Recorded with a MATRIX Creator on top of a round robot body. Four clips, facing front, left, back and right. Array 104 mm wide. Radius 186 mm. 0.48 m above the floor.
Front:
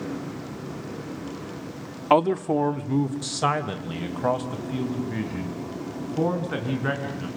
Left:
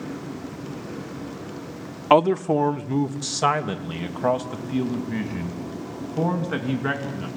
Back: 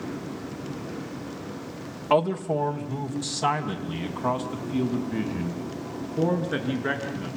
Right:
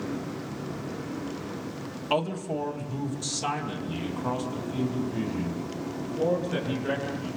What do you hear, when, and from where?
2.1 s a man speaking: 65° left, 1.1 m; by 7.3 s 60° left, 6 m